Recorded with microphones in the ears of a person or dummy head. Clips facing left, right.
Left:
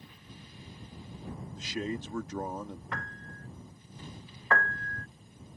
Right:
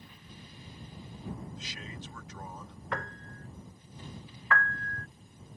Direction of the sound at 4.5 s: 35° left (ahead or behind).